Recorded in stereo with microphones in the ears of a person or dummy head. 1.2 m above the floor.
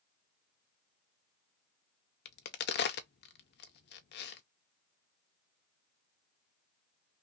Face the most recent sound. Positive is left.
turn(degrees=55)  # may be behind; listen again after turning